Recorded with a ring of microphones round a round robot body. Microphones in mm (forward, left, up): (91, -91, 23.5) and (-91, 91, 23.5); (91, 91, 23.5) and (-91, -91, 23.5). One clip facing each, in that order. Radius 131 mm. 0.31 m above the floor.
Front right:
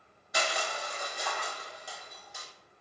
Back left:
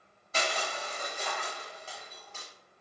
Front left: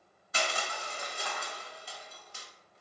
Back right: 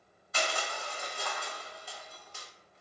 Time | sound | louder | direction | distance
0.3 | crushing | even, back right 1 dB | 30° left | 0.6 m